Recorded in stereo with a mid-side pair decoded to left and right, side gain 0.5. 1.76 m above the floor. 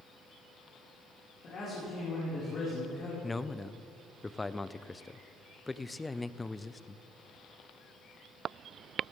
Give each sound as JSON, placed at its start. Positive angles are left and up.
{"t": 1.4, "sound": "a man speaking", "azimuth_deg": 50, "distance_m": 6.0}
{"t": 3.2, "sound": "a man speaking", "azimuth_deg": 15, "distance_m": 0.6}